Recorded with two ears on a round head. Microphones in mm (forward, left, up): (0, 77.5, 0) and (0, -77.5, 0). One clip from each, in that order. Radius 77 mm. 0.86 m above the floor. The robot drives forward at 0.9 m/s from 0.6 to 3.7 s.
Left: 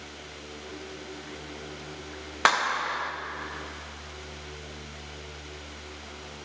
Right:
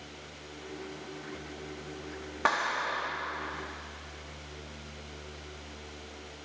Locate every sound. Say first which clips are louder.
2.5 s a clap: left 5 dB; 65° left (ahead or behind), 1.0 m; by 3.1 s 45° left (ahead or behind), 1.3 m